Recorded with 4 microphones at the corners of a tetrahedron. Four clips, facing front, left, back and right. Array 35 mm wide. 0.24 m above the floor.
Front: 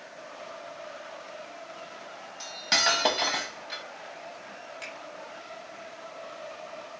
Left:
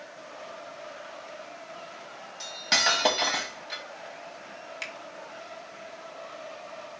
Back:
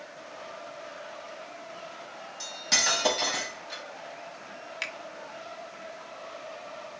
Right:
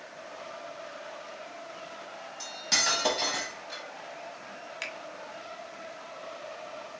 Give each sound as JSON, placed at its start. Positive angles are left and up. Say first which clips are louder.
{"t": 2.4, "sound": "cutlery clinking", "louder": "left 4 dB, front 2 dB", "azimuth_deg": 55, "distance_m": 0.8}
{"t": 4.8, "sound": "a finger snap", "louder": "even, back 7 dB", "azimuth_deg": -175, "distance_m": 1.1}